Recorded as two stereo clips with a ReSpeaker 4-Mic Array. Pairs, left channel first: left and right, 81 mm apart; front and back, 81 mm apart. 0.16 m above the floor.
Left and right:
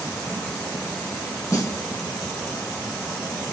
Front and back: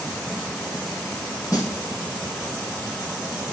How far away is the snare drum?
About 4.5 m.